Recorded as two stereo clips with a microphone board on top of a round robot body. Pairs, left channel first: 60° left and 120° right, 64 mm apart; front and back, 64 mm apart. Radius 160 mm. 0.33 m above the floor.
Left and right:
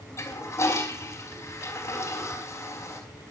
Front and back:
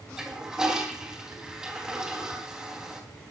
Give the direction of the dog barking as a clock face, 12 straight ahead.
I don't hear a dog barking.